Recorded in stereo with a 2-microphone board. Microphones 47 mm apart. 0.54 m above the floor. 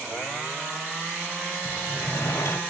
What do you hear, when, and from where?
1.6 s a sliding door: 70° left (ahead or behind), 0.9 m